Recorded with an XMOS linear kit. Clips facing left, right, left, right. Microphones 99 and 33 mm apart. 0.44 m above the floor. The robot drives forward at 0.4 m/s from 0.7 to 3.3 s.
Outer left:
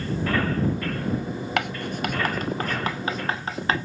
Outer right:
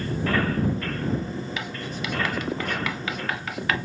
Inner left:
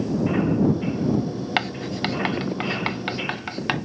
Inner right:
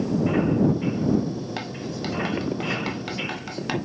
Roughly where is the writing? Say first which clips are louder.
Outer left 5 dB, inner left 6 dB; left.